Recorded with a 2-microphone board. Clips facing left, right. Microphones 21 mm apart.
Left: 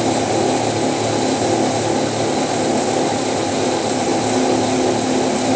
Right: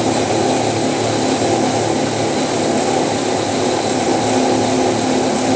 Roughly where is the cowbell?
No cowbell in this recording.